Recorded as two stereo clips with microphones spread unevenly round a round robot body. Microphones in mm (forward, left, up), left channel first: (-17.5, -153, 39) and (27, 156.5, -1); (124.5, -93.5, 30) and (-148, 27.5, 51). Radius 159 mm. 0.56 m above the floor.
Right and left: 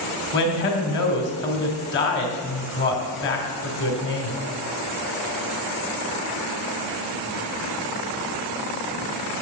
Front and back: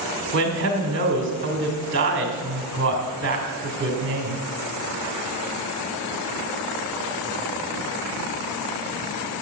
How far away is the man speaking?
About 2.5 m.